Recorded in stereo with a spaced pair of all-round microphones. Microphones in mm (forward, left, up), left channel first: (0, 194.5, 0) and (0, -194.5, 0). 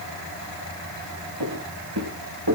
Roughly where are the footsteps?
Right.